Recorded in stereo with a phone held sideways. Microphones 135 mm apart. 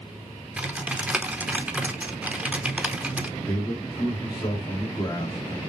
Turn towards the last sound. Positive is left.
turn(degrees=30)  # may be behind; listen again after turning